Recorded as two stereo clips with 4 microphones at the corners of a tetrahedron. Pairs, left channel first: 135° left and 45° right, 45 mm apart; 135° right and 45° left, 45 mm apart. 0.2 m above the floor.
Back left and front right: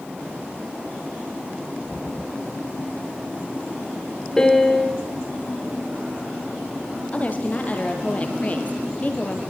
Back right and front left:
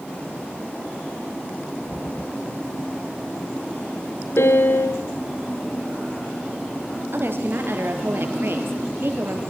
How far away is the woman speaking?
About 5 m.